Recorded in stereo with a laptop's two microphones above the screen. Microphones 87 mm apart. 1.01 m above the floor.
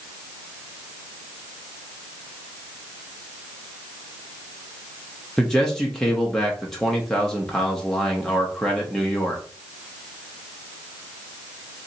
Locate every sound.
5.4 s a man speaking: 5° left (ahead or behind), 0.6 m